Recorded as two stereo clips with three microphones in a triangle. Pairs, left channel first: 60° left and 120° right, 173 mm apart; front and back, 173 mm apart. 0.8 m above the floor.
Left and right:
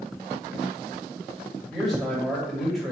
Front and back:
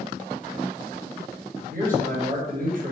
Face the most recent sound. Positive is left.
turn(degrees=150)